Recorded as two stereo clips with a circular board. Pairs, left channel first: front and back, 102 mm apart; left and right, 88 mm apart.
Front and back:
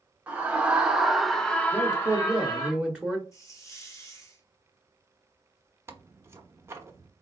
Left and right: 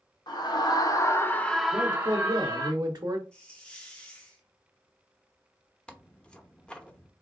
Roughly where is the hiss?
Ahead.